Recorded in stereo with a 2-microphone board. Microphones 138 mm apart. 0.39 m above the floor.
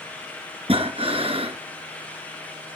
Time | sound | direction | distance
0.7 | breathing | 45° right (ahead or behind) | 2.5 m